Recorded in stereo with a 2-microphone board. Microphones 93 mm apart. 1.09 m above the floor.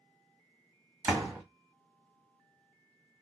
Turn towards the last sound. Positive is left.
turn(degrees=-25)  # may be behind; listen again after turning